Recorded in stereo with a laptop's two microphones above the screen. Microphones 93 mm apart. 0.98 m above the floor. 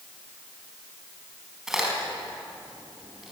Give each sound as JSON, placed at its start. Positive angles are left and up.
{"t": 1.7, "sound": "a crack", "side_deg": -5, "distance_m": 4.0}